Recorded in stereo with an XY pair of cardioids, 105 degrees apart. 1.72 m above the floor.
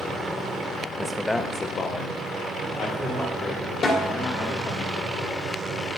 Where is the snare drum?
55° left, 2 m.